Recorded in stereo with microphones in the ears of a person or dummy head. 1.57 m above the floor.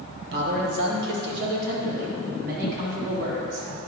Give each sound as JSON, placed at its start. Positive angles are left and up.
{"t": 0.3, "sound": "a man speaking", "side_deg": -60, "distance_m": 1.6}